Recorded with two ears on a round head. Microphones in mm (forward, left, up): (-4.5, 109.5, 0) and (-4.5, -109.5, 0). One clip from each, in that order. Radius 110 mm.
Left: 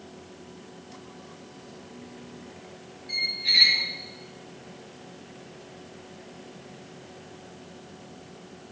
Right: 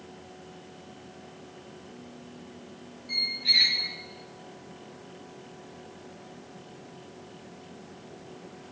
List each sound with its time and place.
3.1 s a squeak: centre (ahead or behind), 2 m